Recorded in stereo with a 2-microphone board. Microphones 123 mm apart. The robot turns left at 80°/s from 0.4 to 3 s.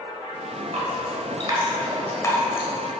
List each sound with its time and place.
0.7 s dripping: 75° right (ahead or behind), 1.6 m; by 2.7 s 60° left (ahead or behind), 1.6 m